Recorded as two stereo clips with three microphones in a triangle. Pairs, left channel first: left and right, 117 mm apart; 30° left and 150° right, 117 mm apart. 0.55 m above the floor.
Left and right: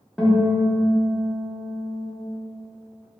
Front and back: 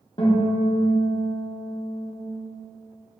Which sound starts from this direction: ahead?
A guitar, at 0.2 s.